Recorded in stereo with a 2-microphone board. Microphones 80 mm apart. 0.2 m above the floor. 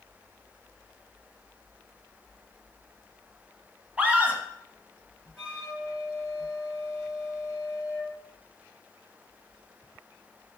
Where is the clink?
No clink in this recording.